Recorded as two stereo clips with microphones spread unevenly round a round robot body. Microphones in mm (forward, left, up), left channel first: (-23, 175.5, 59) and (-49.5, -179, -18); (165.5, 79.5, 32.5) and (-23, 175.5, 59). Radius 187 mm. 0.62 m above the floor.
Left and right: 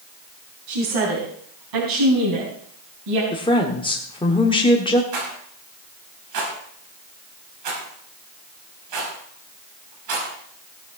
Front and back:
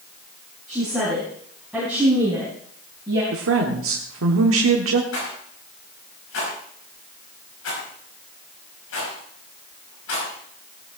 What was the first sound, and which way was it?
A woman speaking, 110° right.